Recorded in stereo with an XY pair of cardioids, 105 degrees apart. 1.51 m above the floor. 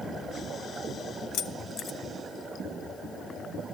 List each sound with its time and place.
1.3 s keys jangling: 70° left, 1.2 m